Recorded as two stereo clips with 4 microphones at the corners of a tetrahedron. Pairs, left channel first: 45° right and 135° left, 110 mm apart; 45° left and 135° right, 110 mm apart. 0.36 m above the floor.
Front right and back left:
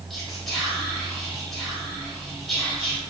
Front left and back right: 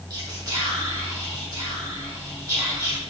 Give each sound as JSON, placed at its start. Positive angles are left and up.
{"t": 0.1, "sound": "whispering", "azimuth_deg": -130, "distance_m": 1.1}